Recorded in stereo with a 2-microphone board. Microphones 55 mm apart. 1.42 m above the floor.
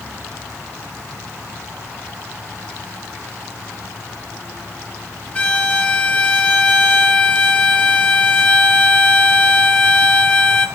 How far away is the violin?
About 1.2 m.